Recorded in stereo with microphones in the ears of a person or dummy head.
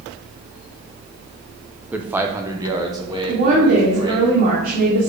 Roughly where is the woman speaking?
Right.